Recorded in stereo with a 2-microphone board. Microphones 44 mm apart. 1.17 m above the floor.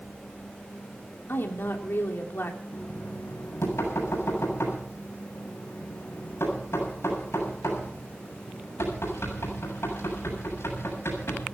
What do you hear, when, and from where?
1.3 s a woman speaking: 60° left (ahead or behind), 3 m
2.7 s knocking: 85° left, 8 m